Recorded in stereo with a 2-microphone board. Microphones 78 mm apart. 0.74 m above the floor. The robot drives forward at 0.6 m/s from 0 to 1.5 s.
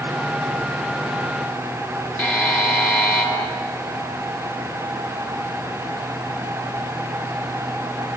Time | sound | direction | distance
2.2 | a buzzer | 20° left (ahead or behind) | 3.5 m